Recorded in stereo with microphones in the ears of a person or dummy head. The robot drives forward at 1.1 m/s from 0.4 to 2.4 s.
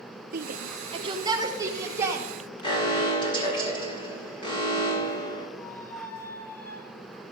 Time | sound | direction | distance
0.3 | a shout | 55° right (ahead or behind) | 0.8 m
2.6 | an alarm | 25° left (ahead or behind) | 3 m
5.6 | a squeak | 20° left (ahead or behind) | 3 m